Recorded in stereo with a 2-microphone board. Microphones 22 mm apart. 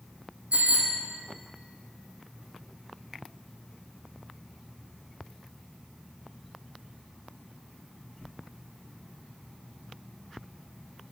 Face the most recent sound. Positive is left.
turn(degrees=-75)  # may be behind; listen again after turning